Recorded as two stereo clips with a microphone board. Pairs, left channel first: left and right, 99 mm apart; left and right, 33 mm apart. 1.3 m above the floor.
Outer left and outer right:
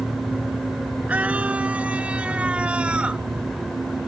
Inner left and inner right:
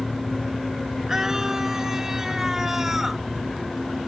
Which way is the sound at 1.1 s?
15° right (ahead or behind).